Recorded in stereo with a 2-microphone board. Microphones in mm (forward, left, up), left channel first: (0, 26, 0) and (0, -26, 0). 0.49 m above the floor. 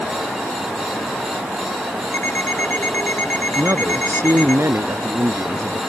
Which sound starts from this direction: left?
An alarm clock, at 2.1 s.